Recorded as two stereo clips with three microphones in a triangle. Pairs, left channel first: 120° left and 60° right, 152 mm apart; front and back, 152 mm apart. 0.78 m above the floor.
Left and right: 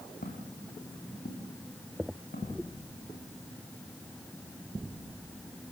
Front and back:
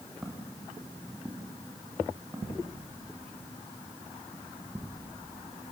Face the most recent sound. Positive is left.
turn(degrees=110)